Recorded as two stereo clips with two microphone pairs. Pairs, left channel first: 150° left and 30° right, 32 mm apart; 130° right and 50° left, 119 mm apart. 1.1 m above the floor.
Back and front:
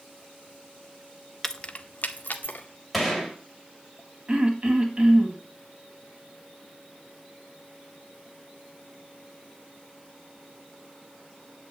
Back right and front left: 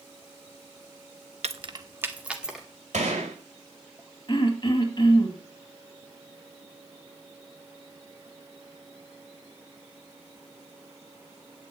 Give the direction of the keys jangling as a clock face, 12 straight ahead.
10 o'clock.